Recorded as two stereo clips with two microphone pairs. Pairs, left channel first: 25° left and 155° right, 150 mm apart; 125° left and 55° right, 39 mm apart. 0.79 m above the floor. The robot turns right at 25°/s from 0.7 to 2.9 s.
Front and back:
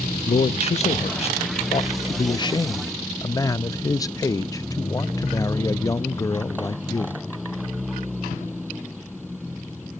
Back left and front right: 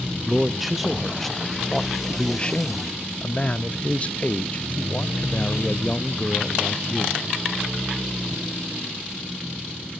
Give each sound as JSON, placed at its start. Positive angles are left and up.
{"t": 0.2, "sound": "a man speaking", "azimuth_deg": 25, "distance_m": 0.5}